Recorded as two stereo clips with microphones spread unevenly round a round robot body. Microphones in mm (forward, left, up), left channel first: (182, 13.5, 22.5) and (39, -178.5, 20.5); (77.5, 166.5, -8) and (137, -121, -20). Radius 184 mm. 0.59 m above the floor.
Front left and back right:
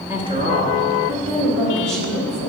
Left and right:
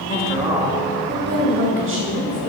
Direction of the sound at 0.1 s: 165° left.